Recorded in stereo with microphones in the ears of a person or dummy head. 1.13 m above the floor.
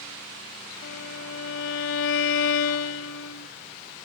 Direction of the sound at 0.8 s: 60° left (ahead or behind).